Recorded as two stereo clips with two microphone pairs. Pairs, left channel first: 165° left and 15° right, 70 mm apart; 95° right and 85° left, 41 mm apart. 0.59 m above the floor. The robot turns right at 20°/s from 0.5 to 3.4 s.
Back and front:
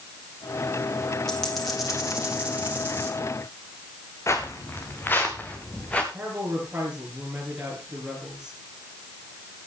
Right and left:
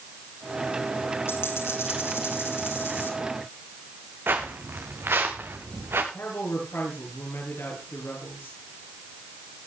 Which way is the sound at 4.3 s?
120° left.